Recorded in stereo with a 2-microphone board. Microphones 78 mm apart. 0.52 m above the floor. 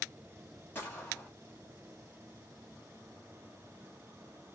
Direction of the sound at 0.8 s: 30° left (ahead or behind).